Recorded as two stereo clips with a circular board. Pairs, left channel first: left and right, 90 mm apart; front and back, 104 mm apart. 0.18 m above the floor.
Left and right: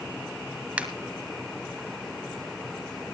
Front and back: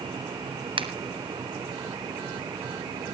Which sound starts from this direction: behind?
A finger snap, at 0.8 s.